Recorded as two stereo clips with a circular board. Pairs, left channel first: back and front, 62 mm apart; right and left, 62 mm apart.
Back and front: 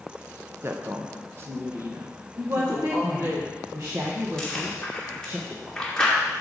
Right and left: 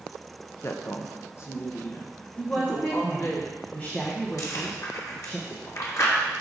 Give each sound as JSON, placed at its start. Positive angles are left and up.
{"t": 0.6, "sound": "a woman speaking", "azimuth_deg": -45, "distance_m": 0.8}
{"t": 2.4, "sound": "a woman speaking", "azimuth_deg": -30, "distance_m": 1.3}
{"t": 4.4, "sound": "chewing", "azimuth_deg": -105, "distance_m": 1.9}